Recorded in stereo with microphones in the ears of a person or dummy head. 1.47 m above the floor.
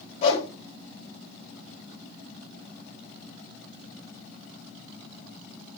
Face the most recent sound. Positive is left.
turn(degrees=40)  # may be behind; listen again after turning